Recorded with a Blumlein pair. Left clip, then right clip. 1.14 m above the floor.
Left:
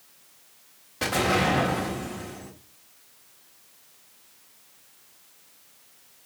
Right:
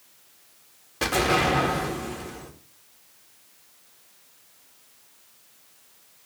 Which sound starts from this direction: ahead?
An explosion, at 1.0 s.